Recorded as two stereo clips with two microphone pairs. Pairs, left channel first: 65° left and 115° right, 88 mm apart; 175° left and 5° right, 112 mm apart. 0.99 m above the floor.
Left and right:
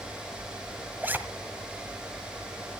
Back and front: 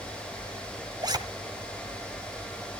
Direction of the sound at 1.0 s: 50° right.